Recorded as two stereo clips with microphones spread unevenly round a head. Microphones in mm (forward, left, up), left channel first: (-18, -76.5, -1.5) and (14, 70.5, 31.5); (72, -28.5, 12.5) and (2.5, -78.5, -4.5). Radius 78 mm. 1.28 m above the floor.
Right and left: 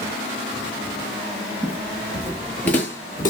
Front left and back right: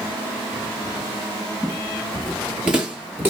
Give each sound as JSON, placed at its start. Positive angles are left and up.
{"t": 1.6, "sound": "footsteps", "azimuth_deg": 95, "distance_m": 1.4}